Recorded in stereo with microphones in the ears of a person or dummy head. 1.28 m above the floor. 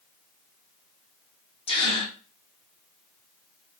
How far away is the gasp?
About 0.7 m.